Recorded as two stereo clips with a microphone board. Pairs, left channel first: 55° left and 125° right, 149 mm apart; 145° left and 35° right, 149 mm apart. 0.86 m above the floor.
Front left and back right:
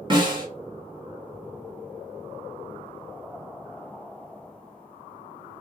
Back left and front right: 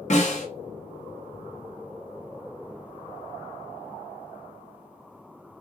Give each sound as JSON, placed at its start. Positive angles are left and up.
{"t": 0.1, "sound": "a snare drum", "azimuth_deg": 180, "distance_m": 0.9}